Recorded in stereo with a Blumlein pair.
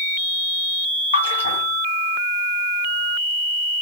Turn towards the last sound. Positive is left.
turn(degrees=70)